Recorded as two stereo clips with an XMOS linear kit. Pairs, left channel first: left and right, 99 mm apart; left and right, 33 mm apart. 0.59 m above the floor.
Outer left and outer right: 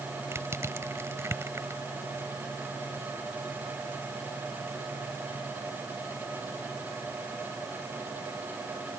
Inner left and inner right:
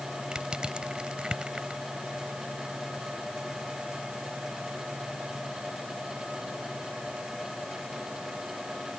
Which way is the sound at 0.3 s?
25° right (ahead or behind).